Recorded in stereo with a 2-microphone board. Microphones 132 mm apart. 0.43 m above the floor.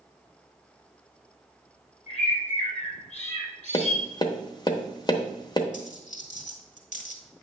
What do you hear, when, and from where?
2.1 s a bird: 55° left (ahead or behind), 2.5 m
3.7 s tapping: 30° left (ahead or behind), 0.9 m
5.7 s a dropped coin: 70° left (ahead or behind), 1.7 m